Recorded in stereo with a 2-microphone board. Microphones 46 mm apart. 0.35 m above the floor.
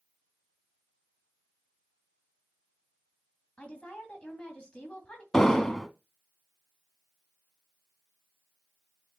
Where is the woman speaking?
25° left (ahead or behind), 2.5 m.